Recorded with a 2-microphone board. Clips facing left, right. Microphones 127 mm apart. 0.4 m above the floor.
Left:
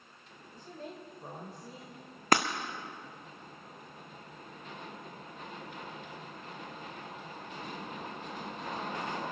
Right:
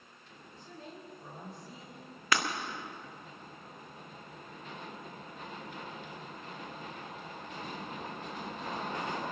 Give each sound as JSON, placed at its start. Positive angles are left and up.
{"t": 0.5, "sound": "a woman speaking", "side_deg": 45, "distance_m": 2.0}
{"t": 2.3, "sound": "breaking glass", "side_deg": 45, "distance_m": 1.2}